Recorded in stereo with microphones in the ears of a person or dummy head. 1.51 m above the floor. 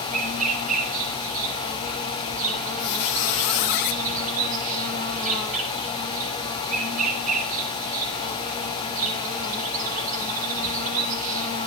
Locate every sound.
0.0 s an insect: 45° right (ahead or behind), 6 m
2.8 s a squeak: 60° left (ahead or behind), 1.2 m